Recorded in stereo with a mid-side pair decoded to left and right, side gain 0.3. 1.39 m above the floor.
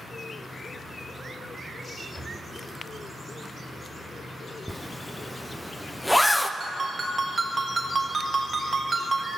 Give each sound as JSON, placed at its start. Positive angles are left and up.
{"t": 2.1, "sound": "a drawer", "azimuth_deg": 15, "distance_m": 2.0}
{"t": 4.7, "sound": "a zipper", "azimuth_deg": 10, "distance_m": 0.5}
{"t": 6.6, "sound": "a ringtone", "azimuth_deg": -45, "distance_m": 1.5}